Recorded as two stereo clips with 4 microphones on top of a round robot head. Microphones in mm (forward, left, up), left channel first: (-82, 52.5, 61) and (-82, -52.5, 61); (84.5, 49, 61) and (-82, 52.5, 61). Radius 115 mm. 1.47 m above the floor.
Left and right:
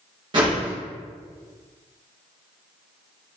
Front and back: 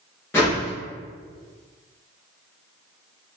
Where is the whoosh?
75° right, 0.8 m.